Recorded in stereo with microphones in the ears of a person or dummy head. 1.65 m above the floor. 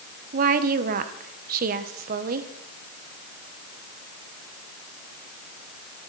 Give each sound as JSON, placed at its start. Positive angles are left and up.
{"t": 0.3, "sound": "a woman speaking", "side_deg": -50, "distance_m": 1.4}